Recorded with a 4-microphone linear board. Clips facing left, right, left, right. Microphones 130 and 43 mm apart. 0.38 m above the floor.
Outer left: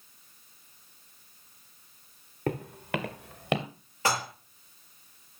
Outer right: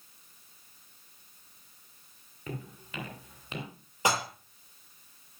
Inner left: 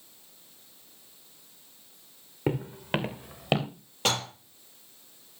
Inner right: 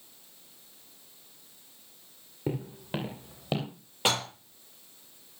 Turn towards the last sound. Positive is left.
turn(degrees=-15)  # may be behind; listen again after turning